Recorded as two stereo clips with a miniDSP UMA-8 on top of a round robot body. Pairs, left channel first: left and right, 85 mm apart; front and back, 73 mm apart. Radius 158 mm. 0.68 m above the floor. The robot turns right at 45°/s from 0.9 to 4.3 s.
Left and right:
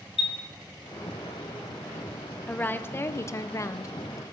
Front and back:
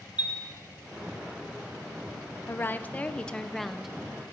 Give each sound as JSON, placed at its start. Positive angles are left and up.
{"t": 0.2, "sound": "a chime", "azimuth_deg": 110, "distance_m": 1.0}
{"t": 2.5, "sound": "a woman speaking", "azimuth_deg": 30, "distance_m": 0.7}